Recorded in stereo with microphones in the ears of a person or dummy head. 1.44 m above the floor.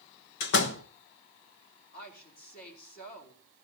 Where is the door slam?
70° left (ahead or behind), 1.1 m.